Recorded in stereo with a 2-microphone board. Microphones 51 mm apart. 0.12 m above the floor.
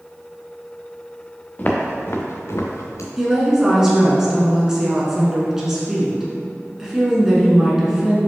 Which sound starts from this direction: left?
Footsteps, at 1.6 s.